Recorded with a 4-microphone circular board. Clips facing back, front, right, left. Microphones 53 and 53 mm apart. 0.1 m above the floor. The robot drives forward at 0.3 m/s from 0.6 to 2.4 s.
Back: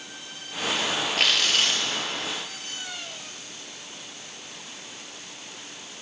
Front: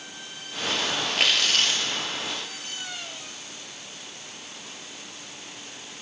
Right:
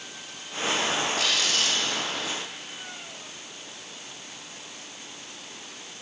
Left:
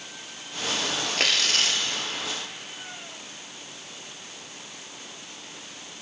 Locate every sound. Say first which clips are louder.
1.2 s tearing paper: even, left 1 dB; 90° left, 0.8 m; by 1.8 s 105° left, 0.8 m